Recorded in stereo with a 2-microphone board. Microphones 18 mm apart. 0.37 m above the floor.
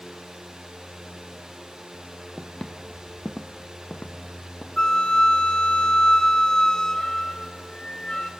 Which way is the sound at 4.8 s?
45° left (ahead or behind).